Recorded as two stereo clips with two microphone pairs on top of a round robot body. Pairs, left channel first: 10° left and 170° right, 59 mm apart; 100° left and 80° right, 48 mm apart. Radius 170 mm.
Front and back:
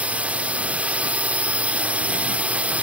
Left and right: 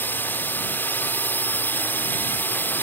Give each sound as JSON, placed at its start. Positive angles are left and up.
{"t": 0.0, "sound": "a drone", "azimuth_deg": 125}